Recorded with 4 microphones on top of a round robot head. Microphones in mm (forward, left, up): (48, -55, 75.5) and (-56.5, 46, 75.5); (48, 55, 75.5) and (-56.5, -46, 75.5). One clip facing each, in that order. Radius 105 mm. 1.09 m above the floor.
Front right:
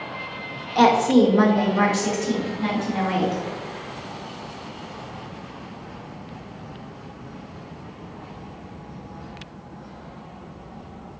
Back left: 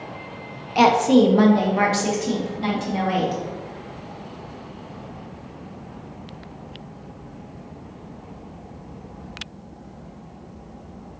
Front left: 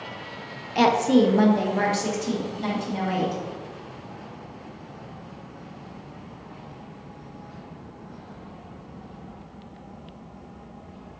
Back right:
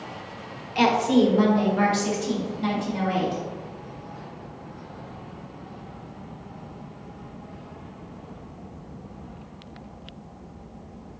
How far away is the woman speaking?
About 0.6 m.